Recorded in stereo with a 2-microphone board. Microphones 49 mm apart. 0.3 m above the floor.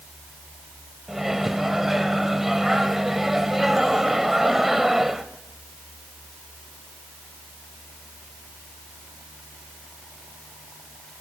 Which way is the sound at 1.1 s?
5° right (ahead or behind).